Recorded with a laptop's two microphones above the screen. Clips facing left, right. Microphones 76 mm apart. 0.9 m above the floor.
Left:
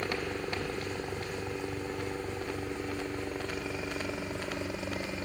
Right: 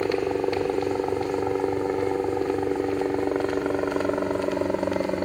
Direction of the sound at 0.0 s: 45° right (ahead or behind).